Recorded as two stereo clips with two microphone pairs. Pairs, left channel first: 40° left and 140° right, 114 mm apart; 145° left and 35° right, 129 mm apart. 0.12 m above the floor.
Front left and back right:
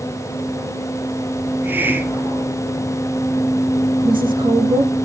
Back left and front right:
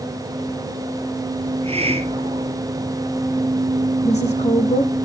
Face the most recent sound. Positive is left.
turn(degrees=175)